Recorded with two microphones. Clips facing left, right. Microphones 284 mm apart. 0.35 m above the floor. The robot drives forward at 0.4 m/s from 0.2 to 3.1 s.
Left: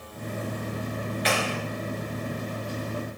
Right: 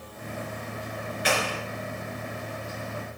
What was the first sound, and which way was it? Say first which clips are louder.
A clap: even; 60° right (ahead or behind).